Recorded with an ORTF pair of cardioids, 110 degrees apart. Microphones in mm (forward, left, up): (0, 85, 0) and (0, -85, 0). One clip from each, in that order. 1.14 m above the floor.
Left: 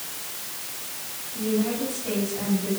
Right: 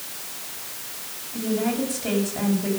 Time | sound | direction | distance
1.3 | a woman speaking | 60° right | 7.5 m